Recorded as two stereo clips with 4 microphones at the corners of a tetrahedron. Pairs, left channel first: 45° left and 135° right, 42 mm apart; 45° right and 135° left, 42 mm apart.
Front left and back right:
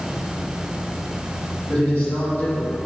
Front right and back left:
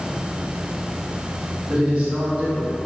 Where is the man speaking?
75° left, 1.5 m.